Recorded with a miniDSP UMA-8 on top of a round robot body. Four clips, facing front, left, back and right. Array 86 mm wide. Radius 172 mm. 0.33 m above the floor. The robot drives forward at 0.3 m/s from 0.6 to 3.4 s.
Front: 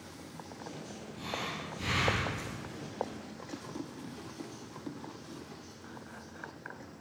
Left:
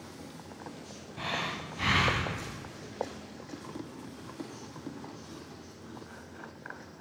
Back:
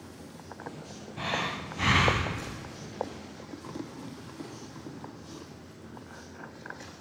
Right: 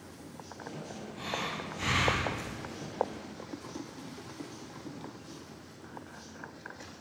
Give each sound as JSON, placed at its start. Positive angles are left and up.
{"t": 1.2, "sound": "breathing", "azimuth_deg": 155, "distance_m": 0.6}